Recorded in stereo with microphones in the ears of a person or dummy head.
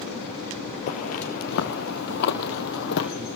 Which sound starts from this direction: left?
Footsteps, at 0.9 s.